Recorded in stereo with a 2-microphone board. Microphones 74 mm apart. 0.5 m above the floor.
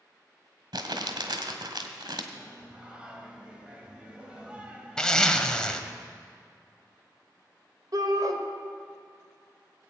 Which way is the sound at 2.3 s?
15° right (ahead or behind).